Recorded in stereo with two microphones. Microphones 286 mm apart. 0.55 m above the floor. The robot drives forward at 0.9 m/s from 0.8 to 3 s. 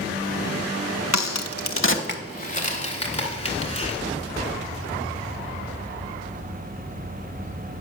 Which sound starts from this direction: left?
A crack, at 1.1 s.